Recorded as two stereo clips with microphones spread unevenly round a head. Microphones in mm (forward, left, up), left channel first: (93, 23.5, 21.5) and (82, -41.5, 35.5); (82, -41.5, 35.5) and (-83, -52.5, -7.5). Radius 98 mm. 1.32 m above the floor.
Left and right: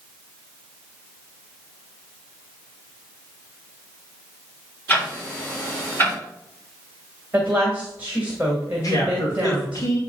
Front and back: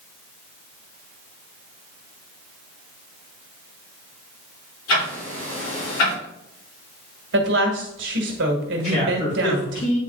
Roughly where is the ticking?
Ahead.